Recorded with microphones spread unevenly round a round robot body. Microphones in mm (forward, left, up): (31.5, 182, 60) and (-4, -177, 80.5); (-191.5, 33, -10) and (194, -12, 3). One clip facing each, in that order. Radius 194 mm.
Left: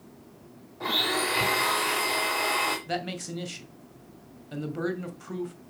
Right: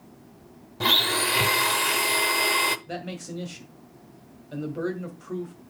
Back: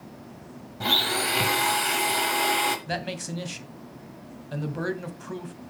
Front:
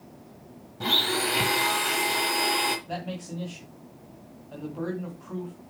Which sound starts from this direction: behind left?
A man speaking, at 2.9 s.